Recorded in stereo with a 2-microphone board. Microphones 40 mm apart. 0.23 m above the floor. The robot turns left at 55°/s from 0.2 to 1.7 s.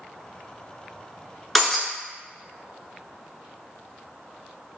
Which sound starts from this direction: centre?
Breaking glass, at 1.6 s.